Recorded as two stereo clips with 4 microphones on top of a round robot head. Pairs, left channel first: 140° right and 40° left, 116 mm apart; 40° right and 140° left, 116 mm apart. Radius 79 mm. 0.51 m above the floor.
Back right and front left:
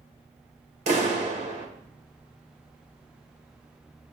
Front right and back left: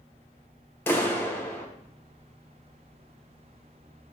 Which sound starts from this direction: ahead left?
A clap, at 0.9 s.